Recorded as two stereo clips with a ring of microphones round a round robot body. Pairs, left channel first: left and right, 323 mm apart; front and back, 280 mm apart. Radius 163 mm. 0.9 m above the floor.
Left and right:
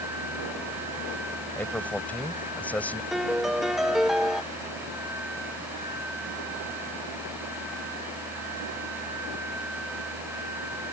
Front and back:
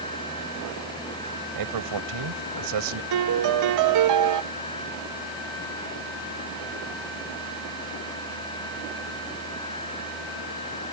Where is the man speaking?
175° left.